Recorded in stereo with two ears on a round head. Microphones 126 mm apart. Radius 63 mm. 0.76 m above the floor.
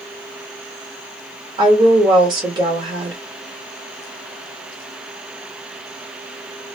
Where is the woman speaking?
30° right (ahead or behind), 1.1 m.